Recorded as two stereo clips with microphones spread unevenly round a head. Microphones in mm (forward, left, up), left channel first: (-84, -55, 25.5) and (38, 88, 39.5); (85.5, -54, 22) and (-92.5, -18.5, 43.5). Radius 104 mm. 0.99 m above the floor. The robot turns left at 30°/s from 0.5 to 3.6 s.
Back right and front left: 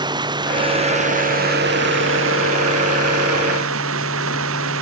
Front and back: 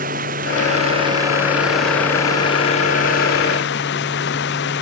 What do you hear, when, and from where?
0.0 s running water: 115° left; by 4.8 s 25° left